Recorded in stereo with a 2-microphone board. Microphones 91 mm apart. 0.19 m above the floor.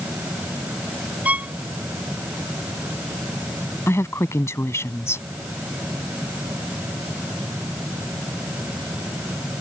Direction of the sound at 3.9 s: 30° left (ahead or behind).